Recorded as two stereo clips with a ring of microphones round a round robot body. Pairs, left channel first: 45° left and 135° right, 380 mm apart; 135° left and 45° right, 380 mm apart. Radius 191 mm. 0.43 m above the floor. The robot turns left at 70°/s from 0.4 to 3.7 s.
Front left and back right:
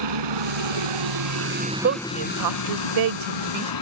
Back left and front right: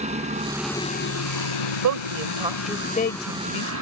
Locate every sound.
0.0 s a helicopter: 120° right; by 3.8 s 10° left
1.8 s a woman speaking: 75° right; by 3.7 s 155° left